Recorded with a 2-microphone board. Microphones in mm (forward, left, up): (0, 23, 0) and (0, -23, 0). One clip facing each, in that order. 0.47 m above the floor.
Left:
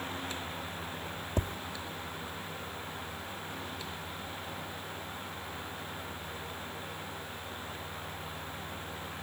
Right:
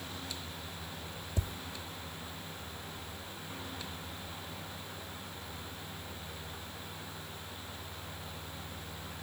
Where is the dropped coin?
No dropped coin in this recording.